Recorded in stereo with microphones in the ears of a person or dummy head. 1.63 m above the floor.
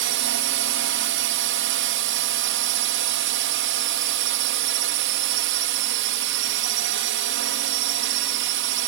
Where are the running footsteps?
I don't hear running footsteps.